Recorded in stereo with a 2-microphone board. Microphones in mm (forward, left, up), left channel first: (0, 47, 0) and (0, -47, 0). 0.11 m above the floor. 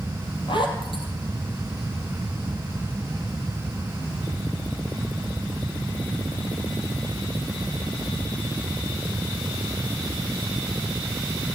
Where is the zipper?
60° left (ahead or behind), 2.5 m.